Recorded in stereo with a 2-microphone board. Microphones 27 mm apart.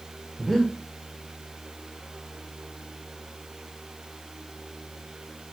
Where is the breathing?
5° left (ahead or behind), 1.0 m.